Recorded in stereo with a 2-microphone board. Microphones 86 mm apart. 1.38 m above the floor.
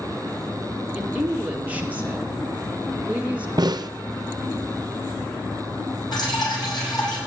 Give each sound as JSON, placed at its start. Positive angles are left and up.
{"t": 0.9, "sound": "a woman speaking", "side_deg": -20, "distance_m": 1.9}
{"t": 3.6, "sound": "a snare drum", "side_deg": -55, "distance_m": 0.6}
{"t": 6.1, "sound": "dripping", "side_deg": 55, "distance_m": 8.0}